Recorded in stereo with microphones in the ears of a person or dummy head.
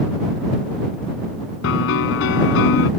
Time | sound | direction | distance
1.6 | a piano | 70° left (ahead or behind) | ?